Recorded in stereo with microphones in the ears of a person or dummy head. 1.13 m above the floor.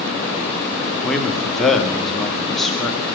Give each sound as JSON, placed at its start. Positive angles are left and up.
{"t": 1.0, "sound": "a man speaking", "side_deg": 5, "distance_m": 3.0}